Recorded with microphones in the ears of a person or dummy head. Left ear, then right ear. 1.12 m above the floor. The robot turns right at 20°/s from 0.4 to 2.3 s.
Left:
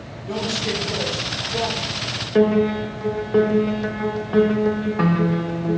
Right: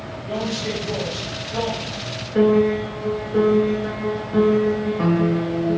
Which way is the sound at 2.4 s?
50° left (ahead or behind).